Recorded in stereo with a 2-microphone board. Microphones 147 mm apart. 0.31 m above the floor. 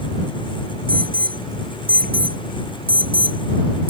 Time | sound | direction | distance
0.9 | an alarm | 80° right | ?